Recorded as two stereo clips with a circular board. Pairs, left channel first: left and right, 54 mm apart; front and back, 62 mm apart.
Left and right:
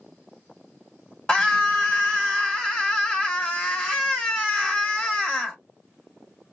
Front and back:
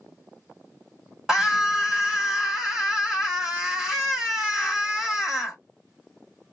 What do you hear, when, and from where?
1.3 s a scream: 115° left, 1.1 m